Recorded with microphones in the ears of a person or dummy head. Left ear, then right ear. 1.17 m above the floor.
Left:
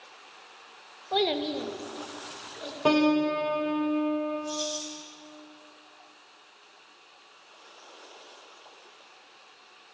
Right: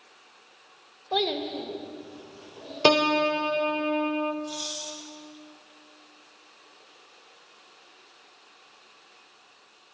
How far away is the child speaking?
About 0.5 m.